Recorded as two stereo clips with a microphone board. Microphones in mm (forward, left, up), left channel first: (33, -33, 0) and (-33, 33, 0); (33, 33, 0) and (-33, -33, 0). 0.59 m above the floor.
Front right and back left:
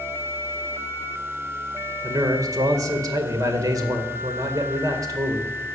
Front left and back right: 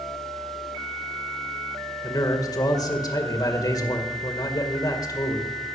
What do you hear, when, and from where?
2.0 s a man speaking: 90° left, 1.9 m